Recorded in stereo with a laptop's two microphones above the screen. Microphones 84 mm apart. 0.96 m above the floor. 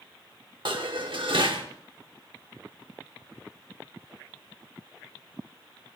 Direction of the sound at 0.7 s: 75° right (ahead or behind).